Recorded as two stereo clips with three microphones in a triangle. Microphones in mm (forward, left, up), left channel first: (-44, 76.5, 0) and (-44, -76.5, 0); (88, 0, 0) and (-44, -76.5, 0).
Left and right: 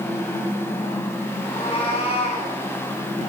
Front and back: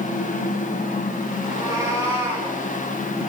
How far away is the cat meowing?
About 4 m.